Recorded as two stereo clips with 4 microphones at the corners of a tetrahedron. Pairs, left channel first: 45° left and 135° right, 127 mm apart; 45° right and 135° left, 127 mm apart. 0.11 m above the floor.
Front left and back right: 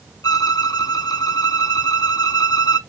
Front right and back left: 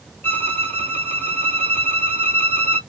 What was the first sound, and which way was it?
A violin, 15° left.